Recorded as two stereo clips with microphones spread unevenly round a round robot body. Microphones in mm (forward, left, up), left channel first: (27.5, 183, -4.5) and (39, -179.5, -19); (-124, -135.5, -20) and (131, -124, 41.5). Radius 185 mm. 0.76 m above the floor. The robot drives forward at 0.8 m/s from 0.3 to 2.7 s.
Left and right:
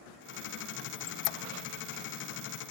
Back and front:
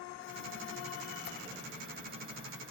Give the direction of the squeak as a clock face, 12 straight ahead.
9 o'clock.